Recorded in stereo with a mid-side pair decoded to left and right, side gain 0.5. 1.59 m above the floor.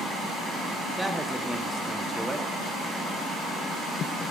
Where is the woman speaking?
5° right, 1.0 m.